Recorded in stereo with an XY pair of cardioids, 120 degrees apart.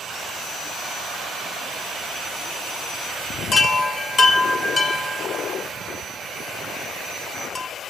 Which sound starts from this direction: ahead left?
A chime, at 3.5 s.